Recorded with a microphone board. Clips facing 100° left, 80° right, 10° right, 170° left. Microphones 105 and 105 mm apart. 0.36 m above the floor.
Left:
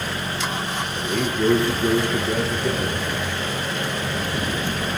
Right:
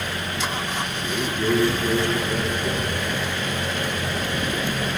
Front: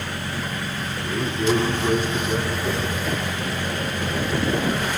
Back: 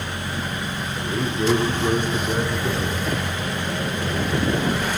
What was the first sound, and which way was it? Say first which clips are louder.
A man speaking: left 5 dB, back 2 dB; 130° left.